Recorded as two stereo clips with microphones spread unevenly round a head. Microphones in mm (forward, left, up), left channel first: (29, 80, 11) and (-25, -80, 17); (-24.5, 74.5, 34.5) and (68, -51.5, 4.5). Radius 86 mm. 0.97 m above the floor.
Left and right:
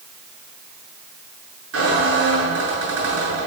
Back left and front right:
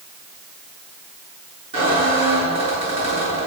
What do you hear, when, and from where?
1.7 s a squeak: 110° right, 7.5 m